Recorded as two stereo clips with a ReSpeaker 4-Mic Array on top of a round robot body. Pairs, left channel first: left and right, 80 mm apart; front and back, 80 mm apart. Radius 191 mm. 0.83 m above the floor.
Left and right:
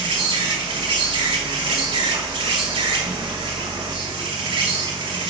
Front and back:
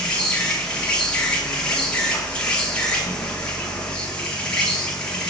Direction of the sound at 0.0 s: 80° right.